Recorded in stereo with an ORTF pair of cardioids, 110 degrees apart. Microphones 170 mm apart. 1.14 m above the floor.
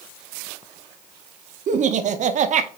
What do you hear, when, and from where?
1.7 s laughter: 45° right, 0.7 m